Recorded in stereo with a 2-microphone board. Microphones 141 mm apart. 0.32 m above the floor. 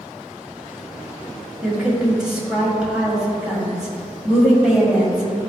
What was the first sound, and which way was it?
A woman speaking, 5° right (ahead or behind).